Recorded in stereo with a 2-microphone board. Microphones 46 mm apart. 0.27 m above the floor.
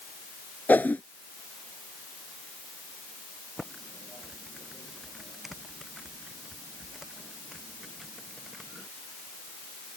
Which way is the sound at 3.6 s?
5° right (ahead or behind).